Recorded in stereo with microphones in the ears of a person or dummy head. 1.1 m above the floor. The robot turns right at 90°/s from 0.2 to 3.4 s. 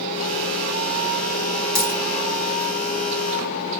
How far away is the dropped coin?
About 1.9 m.